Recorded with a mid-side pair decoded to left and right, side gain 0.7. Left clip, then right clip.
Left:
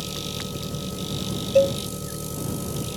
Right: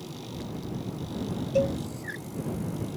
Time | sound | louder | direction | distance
0.0 | an engine running | left 9 dB | 65° left | ?
1.6 | a cowbell | left 7 dB | 30° left | ?